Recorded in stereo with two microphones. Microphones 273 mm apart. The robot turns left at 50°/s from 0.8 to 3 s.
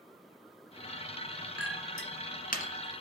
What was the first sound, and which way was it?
A clink, 55° left (ahead or behind).